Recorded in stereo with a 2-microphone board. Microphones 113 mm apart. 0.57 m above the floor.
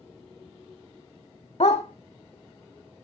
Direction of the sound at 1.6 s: 65° left (ahead or behind).